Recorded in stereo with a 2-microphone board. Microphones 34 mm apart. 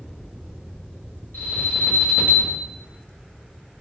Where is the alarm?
55° left (ahead or behind), 1.5 m.